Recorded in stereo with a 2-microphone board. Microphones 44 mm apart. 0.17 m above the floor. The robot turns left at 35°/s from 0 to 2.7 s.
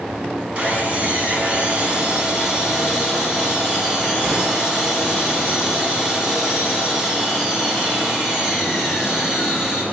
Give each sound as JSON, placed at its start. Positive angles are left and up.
{"t": 0.6, "sound": "sawing", "side_deg": -25, "distance_m": 1.8}